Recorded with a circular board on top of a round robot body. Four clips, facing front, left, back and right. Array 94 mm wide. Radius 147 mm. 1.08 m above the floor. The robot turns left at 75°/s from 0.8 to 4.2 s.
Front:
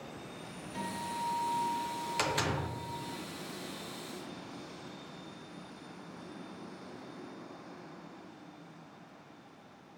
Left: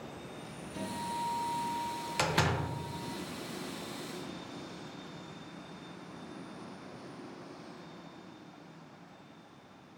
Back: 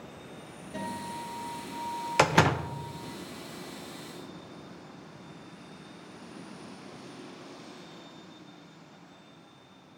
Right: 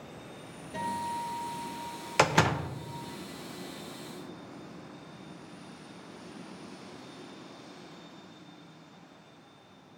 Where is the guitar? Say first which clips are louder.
Right 4 dB, back 1 dB; 125° right, 3 m; by 2.9 s 75° left, 3 m.